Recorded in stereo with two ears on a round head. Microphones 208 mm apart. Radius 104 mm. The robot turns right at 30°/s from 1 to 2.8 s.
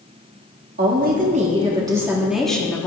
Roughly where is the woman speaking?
Ahead right.